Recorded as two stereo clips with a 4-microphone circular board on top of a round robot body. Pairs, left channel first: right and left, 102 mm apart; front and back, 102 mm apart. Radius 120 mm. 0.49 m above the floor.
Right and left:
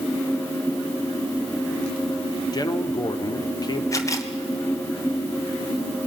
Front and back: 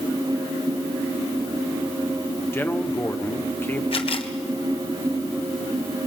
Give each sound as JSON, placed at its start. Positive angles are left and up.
{"t": 2.5, "sound": "a man speaking", "azimuth_deg": -60, "distance_m": 1.7}
{"t": 3.9, "sound": "a camera shutter", "azimuth_deg": -30, "distance_m": 1.7}